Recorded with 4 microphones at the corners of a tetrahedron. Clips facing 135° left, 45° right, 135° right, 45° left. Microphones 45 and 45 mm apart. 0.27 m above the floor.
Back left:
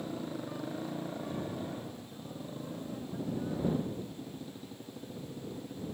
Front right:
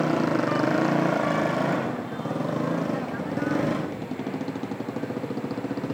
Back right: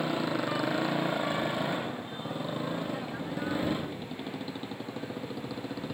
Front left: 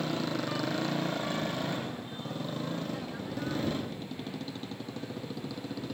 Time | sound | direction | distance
0.0 | a motorcycle | 60° right | ?